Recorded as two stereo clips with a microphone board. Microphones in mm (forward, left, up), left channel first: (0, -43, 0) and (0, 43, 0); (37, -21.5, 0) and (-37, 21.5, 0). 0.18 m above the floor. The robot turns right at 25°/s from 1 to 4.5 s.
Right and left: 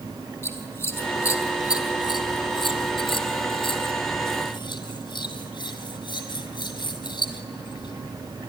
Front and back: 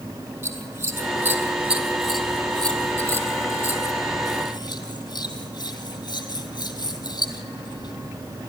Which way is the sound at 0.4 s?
145° right.